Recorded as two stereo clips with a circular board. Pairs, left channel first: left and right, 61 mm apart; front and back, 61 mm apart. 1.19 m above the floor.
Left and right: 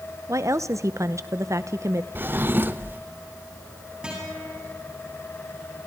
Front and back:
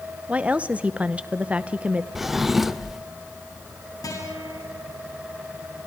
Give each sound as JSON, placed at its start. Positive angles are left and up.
{"t": 0.3, "sound": "a woman speaking", "azimuth_deg": -115, "distance_m": 0.8}
{"t": 2.1, "sound": "a drawer", "azimuth_deg": -100, "distance_m": 0.9}
{"t": 4.0, "sound": "a guitar", "azimuth_deg": -15, "distance_m": 8.0}